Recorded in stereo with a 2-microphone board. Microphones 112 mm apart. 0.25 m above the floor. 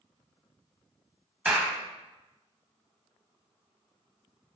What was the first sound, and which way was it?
A clap, 10° right (ahead or behind).